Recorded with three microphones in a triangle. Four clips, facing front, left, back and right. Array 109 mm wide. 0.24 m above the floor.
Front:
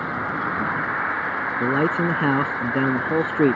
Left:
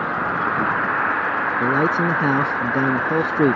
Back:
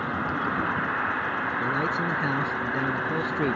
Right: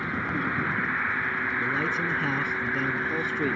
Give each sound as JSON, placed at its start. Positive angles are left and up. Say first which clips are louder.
{"t": 0.0, "sound": "an insect", "louder": "left 7 dB, front 2 dB", "azimuth_deg": 85}
{"t": 1.6, "sound": "a man speaking", "louder": "left 11 dB, front 9 dB", "azimuth_deg": 50}